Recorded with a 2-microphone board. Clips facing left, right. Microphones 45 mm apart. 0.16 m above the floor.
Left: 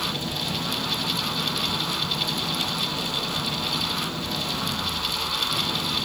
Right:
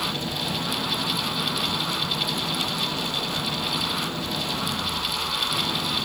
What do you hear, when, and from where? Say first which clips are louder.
0.0 s an engine running: right 1 dB; 10° right (ahead or behind)